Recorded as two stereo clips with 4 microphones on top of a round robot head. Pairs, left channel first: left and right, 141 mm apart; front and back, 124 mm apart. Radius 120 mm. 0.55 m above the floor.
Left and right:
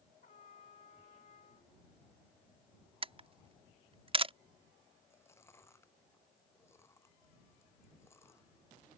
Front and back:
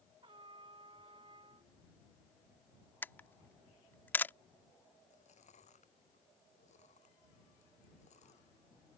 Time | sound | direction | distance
0.2 | a trumpet | 135° left | ?
3.0 | a camera shutter | 65° right | ?
5.1 | chewing | 20° left | ?